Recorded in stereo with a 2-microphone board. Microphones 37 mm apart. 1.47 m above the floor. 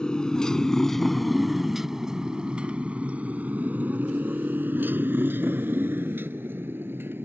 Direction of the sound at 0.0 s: 25° left (ahead or behind).